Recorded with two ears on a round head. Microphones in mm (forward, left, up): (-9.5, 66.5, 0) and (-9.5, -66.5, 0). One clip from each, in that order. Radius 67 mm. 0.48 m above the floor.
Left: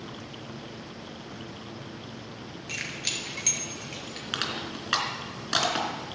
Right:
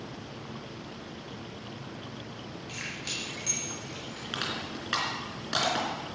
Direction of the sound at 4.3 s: 25° left (ahead or behind).